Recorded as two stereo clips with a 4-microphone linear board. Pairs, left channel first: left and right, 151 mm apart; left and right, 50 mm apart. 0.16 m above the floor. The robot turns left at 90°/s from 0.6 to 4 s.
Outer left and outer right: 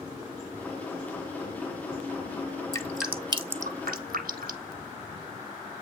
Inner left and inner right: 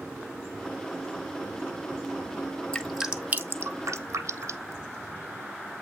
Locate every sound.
2.7 s dripping: 20° left (ahead or behind), 0.8 m; by 4.7 s 75° right (ahead or behind), 0.8 m